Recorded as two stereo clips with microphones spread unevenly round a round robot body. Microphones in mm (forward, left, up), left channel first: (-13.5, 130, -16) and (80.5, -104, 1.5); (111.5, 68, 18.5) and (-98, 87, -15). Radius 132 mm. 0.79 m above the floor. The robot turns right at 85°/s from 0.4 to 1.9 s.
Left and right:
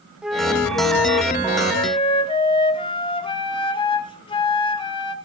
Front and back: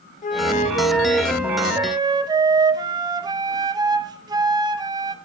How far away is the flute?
About 0.6 m.